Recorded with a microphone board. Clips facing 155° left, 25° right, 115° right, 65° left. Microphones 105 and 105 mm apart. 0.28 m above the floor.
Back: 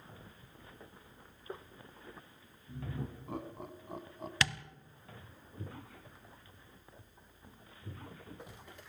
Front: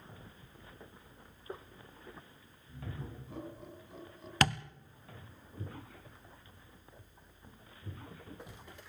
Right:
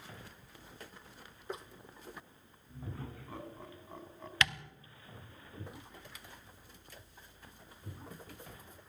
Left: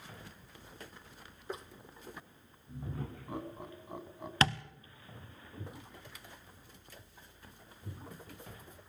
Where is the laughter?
140° left, 3.5 m.